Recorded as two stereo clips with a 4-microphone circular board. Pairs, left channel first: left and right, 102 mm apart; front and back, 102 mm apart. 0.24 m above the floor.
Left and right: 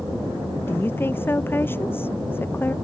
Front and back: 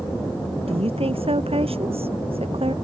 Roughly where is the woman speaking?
Behind.